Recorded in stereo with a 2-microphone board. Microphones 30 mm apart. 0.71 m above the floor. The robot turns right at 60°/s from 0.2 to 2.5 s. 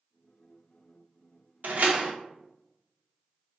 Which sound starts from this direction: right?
A door slam, at 1.6 s.